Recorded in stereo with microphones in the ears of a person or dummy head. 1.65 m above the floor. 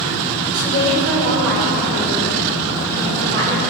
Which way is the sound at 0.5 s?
80° right.